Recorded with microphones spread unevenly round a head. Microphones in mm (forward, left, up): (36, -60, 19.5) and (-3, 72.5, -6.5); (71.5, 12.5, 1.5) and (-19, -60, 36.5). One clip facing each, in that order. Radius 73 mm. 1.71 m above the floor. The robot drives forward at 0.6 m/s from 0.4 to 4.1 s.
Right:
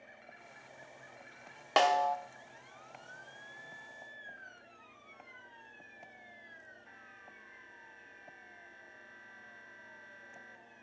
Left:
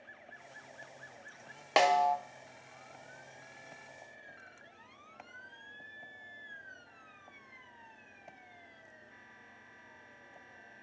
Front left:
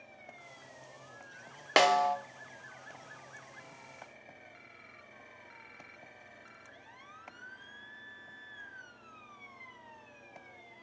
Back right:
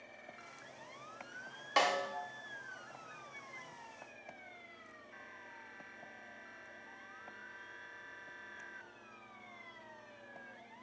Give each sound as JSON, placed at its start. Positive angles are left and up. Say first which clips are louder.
{"t": 1.8, "sound": "a snare drum", "louder": "left 1 dB, front left 8 dB", "azimuth_deg": 20, "distance_m": 0.9}